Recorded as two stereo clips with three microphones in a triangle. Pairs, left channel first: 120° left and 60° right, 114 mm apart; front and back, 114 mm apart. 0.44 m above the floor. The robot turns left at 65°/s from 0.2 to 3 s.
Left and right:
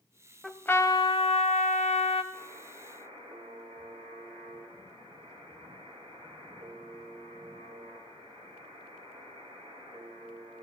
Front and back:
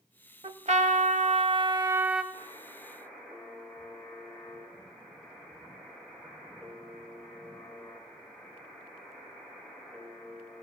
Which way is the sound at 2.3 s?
45° right.